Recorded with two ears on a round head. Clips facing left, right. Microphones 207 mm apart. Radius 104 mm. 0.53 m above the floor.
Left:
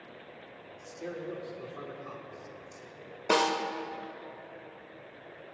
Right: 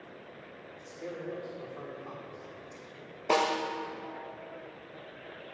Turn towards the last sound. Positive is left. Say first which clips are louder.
# left 1 dB
turn(degrees=20)  # may be behind; listen again after turning